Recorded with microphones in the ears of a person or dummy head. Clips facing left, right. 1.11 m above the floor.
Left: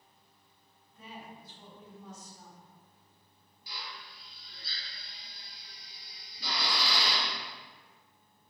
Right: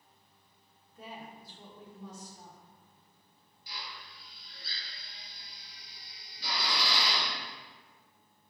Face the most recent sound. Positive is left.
turn(degrees=80)